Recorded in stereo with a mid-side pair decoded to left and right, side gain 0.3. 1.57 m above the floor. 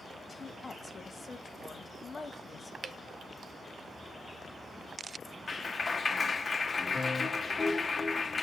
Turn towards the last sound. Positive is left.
turn(degrees=45)